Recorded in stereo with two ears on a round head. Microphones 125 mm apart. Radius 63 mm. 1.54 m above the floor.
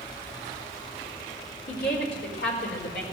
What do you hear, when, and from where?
1.7 s a woman speaking: 85° left, 4 m; by 3.0 s 80° left, 5 m